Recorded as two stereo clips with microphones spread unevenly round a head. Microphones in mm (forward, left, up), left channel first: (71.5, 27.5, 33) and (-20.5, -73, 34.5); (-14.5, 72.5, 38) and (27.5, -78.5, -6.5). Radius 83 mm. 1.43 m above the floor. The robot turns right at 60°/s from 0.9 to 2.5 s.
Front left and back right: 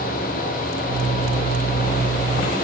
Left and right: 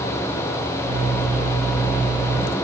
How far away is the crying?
No crying in this recording.